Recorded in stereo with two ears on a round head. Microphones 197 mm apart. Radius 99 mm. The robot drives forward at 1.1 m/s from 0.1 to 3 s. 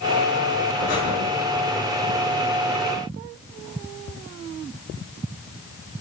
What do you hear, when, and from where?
0.8 s breathing: 40° left (ahead or behind), 3 m; by 1.1 s 45° left (ahead or behind), 3 m